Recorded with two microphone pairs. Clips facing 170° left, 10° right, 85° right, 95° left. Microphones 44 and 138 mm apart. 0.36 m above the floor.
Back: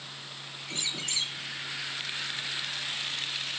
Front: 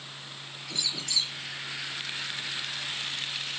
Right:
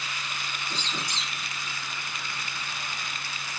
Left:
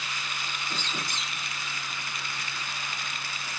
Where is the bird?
130° left.